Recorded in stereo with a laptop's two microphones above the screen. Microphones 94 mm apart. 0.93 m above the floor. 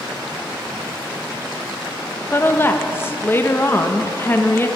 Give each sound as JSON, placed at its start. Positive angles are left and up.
{"t": 2.3, "sound": "a woman speaking", "side_deg": 25, "distance_m": 1.1}